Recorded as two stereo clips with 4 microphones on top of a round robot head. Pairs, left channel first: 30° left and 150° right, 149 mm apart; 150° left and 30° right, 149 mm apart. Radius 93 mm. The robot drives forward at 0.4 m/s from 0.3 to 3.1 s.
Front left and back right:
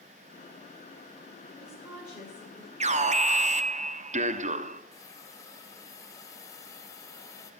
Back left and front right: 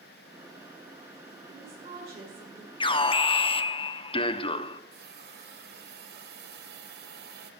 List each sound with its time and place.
1.5 s a woman speaking: 75° right, 8 m; by 2.7 s 80° right, 8 m
2.8 s an alarm: 165° right, 0.9 m; by 4.8 s 170° right, 1.0 m
4.9 s a hiss: 40° right, 1.3 m